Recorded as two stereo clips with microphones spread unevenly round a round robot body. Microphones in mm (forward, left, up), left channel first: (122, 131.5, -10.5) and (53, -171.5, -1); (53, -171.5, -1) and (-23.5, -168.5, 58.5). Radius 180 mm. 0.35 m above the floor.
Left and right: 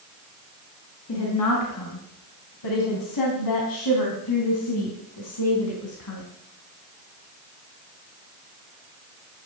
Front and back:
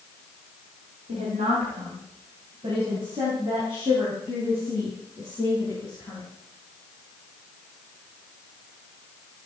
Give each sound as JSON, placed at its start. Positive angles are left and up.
{"t": 1.1, "sound": "a woman speaking", "azimuth_deg": 125, "distance_m": 3.5}